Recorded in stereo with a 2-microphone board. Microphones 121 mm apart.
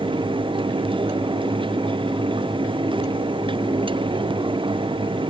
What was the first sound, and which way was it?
Only background noise.